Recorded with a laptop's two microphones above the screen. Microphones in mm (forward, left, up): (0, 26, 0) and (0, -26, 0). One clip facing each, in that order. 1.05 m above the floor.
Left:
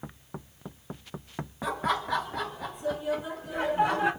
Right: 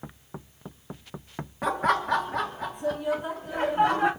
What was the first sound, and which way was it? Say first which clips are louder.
Laughter: right 5 dB; 60° right (ahead or behind).